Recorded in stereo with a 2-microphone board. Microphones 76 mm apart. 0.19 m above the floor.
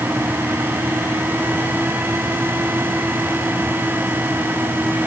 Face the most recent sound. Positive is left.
No sound to turn to.